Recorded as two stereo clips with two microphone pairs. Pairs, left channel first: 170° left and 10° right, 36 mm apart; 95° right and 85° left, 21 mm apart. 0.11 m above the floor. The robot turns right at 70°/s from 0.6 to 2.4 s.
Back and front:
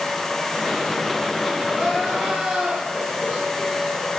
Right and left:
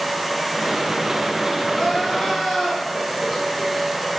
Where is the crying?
110° right, 2 m; by 4.1 s 60° right, 2 m.